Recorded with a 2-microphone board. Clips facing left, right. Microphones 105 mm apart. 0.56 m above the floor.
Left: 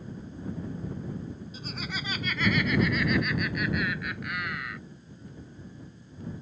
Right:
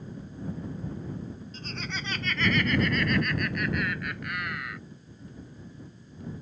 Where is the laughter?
10° left (ahead or behind); by 4.8 s centre (ahead or behind).